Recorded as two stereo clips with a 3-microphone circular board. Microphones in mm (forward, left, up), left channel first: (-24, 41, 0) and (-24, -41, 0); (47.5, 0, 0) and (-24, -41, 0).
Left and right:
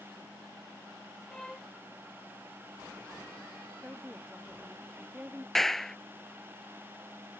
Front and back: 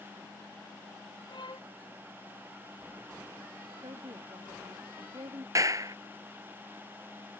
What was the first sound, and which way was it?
A violin, 5° left.